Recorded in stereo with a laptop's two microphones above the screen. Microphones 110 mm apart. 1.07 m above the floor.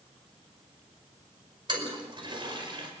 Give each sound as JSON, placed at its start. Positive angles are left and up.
{"t": 1.7, "sound": "a toilet flushing", "side_deg": -45, "distance_m": 5.0}